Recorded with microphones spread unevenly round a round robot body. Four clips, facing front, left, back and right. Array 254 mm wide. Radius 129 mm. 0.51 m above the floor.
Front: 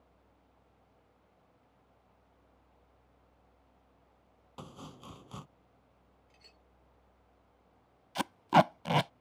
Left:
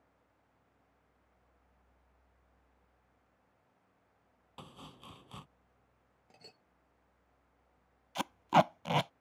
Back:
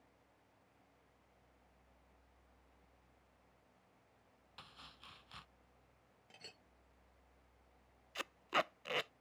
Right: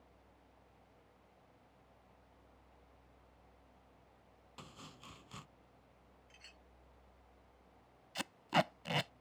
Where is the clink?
115° left.